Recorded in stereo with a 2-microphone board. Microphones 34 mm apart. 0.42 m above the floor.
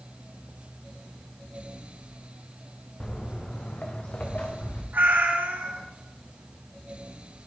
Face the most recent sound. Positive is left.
turn(degrees=-80)